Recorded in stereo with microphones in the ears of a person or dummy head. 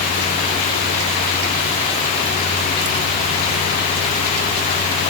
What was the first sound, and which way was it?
Only background noise.